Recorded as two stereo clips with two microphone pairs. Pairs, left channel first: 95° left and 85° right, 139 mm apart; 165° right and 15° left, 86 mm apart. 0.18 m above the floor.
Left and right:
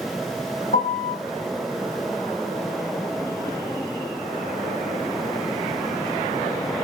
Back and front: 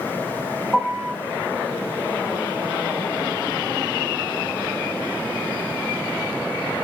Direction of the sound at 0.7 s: 105° left.